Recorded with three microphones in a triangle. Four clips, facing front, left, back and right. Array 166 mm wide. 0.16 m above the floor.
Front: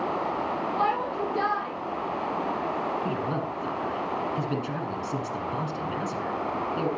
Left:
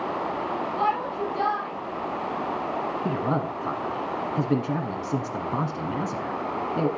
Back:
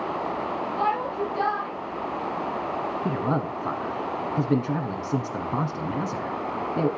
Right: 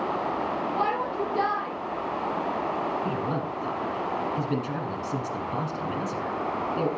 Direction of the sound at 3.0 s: 145° left.